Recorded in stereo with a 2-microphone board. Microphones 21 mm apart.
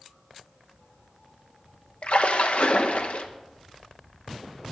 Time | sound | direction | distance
2.0 | a splash | 65° left (ahead or behind) | 1.0 m